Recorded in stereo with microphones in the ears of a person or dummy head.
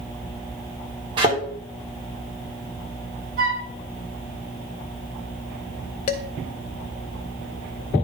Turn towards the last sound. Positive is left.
turn(degrees=40)  # may be behind; listen again after turning